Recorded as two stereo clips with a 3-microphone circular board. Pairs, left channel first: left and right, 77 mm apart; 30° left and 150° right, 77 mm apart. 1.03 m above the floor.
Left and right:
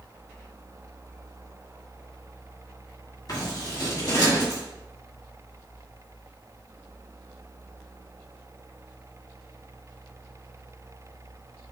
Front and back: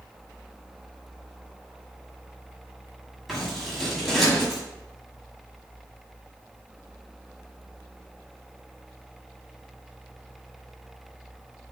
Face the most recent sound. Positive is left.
turn(degrees=120)